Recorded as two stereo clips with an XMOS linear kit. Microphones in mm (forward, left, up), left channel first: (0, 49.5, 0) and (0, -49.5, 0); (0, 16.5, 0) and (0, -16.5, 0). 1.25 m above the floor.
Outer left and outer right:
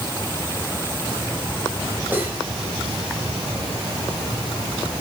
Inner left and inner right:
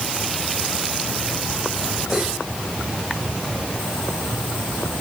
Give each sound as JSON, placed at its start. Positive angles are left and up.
{"t": 2.1, "sound": "cutlery clinking", "side_deg": -20, "distance_m": 4.0}